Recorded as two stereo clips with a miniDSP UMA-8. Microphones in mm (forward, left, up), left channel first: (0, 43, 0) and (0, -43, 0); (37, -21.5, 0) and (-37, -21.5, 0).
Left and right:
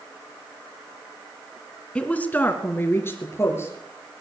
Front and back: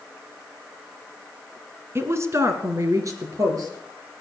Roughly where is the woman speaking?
Behind.